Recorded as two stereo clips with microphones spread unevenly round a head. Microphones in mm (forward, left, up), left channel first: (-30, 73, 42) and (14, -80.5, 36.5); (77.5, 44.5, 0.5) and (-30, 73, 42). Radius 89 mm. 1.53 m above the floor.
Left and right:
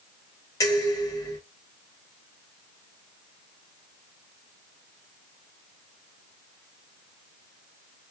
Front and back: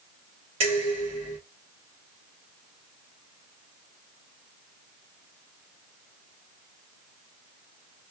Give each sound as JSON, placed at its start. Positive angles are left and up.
{"t": 0.6, "sound": "dishes clattering", "azimuth_deg": 175, "distance_m": 1.5}